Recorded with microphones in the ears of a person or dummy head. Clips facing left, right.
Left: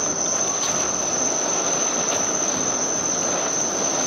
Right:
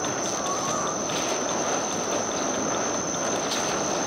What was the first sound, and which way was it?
An insect, 60° left (ahead or behind).